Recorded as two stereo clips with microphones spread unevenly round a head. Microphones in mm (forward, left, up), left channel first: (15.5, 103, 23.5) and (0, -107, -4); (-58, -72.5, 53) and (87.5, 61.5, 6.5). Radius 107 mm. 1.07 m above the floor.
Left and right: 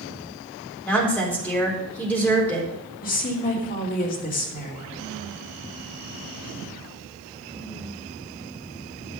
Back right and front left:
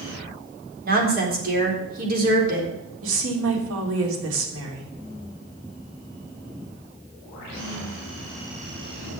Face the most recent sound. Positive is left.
turn(degrees=35)